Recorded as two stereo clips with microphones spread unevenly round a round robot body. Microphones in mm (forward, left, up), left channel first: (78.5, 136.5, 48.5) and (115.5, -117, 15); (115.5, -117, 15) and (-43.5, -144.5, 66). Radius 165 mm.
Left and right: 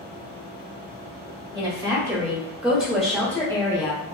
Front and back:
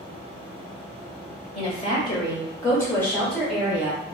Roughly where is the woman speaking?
Ahead.